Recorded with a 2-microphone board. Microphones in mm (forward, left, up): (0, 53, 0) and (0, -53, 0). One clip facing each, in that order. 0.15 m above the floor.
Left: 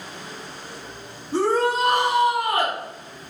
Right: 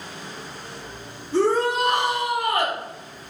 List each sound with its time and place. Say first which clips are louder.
1.3 s a shout: even; 40° left (ahead or behind), 1.9 m; by 2.8 s 35° left (ahead or behind), 1.5 m